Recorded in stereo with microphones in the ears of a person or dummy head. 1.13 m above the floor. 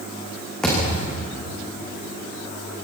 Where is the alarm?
I don't hear an alarm.